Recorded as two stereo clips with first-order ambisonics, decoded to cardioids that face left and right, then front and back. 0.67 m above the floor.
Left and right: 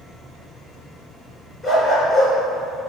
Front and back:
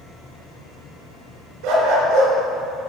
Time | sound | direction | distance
1.6 | a dog barking | straight behind | 2.5 m